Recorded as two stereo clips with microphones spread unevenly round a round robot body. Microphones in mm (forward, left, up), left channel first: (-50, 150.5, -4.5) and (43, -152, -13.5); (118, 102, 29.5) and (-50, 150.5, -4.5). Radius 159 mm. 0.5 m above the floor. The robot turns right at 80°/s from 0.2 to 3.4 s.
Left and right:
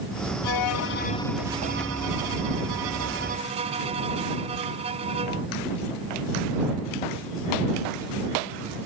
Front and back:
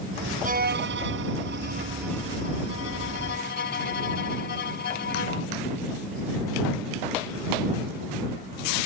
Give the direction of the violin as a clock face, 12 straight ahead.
8 o'clock.